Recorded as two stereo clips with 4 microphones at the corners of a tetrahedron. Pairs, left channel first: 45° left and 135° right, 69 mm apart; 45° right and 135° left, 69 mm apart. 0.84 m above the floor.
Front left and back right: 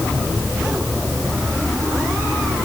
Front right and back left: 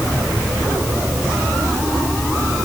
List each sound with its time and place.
Only background noise.